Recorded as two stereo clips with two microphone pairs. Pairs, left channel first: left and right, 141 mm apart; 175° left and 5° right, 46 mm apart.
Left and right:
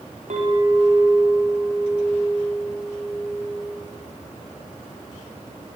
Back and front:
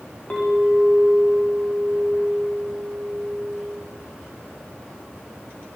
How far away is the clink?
About 8 m.